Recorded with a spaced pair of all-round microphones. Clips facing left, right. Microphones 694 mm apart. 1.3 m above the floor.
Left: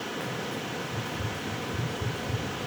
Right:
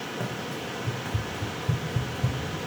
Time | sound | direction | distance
0.2 | running footsteps | 70° right (ahead or behind) | 5 m